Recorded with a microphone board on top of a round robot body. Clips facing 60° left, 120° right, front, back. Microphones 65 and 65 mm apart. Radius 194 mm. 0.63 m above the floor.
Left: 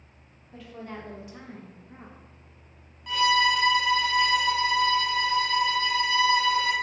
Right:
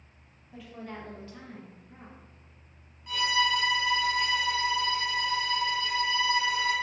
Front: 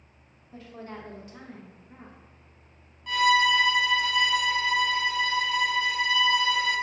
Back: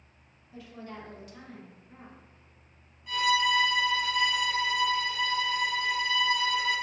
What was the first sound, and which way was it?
A woman speaking, 40° right.